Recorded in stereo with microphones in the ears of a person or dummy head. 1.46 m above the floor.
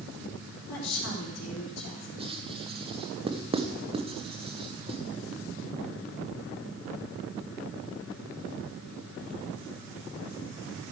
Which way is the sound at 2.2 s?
30° right (ahead or behind).